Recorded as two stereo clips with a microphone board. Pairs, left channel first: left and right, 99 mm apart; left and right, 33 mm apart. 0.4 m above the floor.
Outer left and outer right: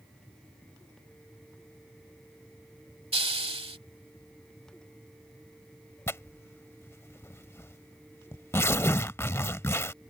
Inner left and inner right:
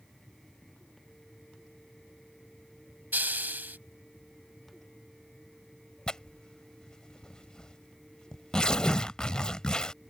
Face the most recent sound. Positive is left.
turn(degrees=30)  # may be behind; listen again after turning